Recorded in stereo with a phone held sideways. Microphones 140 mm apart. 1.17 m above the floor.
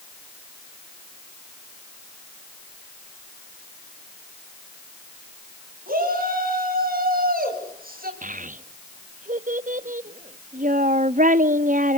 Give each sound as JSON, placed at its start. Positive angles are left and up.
{"t": 5.9, "sound": "a shout", "side_deg": -75, "distance_m": 9.0}
{"t": 8.2, "sound": "a child speaking", "side_deg": -60, "distance_m": 0.9}